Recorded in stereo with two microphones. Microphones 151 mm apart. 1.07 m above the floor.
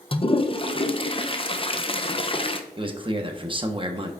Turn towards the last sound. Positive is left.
turn(degrees=-35)  # may be behind; listen again after turning